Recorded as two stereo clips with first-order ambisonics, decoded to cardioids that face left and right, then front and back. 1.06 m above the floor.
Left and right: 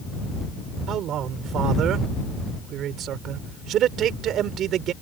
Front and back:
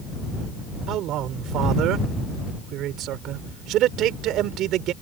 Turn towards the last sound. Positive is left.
turn(degrees=-140)